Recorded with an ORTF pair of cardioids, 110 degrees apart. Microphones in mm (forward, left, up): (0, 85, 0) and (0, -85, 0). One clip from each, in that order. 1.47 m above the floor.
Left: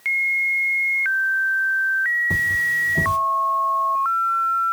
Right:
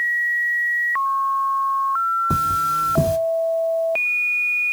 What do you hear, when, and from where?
2.3 s cutlery clinking: 35° right, 1.8 m